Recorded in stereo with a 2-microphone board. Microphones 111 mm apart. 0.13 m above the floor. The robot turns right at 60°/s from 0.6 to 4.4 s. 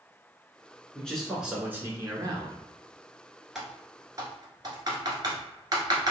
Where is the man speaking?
160° left, 1.3 m; by 2.6 s 100° right, 1.3 m.